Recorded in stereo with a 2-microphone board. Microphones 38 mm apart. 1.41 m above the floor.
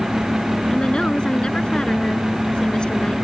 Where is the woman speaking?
25° left (ahead or behind).